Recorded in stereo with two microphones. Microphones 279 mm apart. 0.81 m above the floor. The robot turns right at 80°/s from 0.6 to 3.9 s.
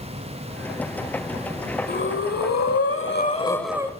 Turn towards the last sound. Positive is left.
turn(degrees=-160)